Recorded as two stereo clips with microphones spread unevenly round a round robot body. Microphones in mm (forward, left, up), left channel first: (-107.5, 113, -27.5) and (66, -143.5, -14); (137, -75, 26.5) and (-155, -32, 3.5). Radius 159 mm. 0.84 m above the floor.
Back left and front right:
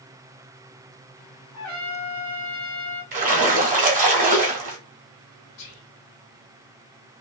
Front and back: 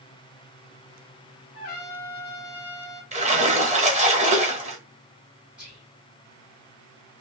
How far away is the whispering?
About 1.6 m.